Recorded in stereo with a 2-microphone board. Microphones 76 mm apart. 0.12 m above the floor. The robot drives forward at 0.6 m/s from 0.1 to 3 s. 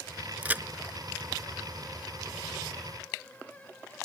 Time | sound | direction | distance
0.4 | a crack | 20° right (ahead or behind) | ?